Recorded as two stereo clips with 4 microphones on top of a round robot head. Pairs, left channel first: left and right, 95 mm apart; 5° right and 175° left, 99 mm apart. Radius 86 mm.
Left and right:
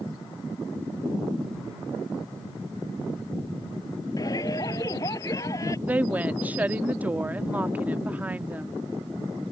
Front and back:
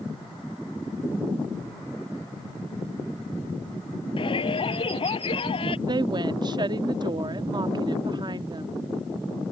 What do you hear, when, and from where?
4.2 s a shout: 30° left; by 5.8 s 25° left
5.9 s a woman speaking: 160° right